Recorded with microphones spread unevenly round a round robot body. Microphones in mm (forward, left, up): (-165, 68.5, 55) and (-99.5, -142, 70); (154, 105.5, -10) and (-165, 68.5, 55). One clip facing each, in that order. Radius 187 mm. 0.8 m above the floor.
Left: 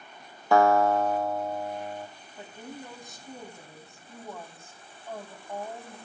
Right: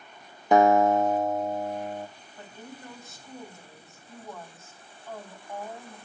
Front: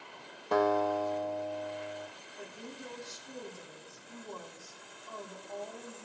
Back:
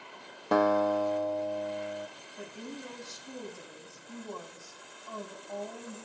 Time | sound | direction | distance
0.5 | a guitar | 145° right | 0.9 m
2.4 | a woman speaking | straight behind | 5.5 m